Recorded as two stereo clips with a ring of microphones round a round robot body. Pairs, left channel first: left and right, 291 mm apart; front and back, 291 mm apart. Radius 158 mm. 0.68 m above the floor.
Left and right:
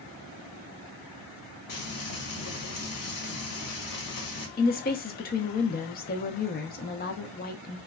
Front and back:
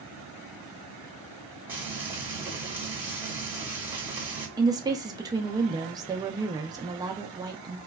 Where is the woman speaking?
115° left, 0.6 m.